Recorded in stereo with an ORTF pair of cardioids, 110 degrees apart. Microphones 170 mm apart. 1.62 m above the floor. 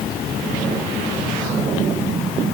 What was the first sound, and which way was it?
Only background noise.